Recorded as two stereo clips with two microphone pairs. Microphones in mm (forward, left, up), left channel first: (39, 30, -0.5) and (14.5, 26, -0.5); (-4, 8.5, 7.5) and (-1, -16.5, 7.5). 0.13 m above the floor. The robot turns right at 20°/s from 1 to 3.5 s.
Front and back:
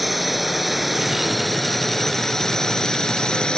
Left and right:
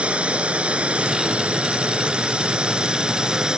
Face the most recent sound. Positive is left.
turn(degrees=-35)